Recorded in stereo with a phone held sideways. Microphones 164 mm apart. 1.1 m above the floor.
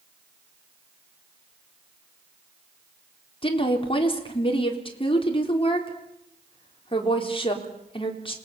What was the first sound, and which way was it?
A woman speaking, 35° left (ahead or behind).